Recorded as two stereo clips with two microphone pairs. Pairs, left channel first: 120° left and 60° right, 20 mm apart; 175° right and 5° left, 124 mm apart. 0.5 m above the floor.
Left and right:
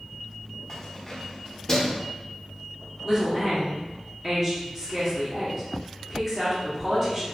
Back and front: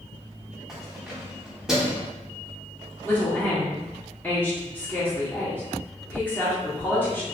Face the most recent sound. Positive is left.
turn(degrees=-115)